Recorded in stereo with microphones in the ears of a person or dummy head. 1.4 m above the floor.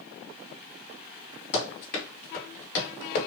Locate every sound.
1.5 s running footsteps: 35° left (ahead or behind), 1.9 m; by 3.3 s 45° left (ahead or behind), 1.8 m